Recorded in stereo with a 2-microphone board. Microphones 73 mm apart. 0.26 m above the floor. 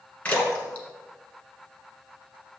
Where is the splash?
20° left (ahead or behind), 1.7 m.